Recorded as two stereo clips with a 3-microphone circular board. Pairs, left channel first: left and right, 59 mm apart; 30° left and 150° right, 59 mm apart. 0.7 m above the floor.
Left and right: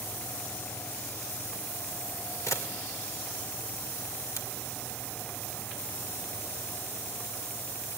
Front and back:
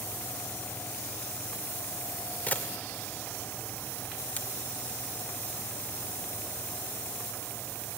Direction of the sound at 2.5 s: 90° left.